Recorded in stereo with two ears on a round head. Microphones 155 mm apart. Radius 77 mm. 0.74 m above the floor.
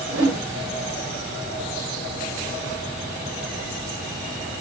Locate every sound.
0.1 s a whoosh: 65° right (ahead or behind), 2 m